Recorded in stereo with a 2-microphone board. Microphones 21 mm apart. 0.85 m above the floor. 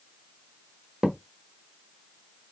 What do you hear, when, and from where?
1.0 s a thud: 60° right (ahead or behind), 0.8 m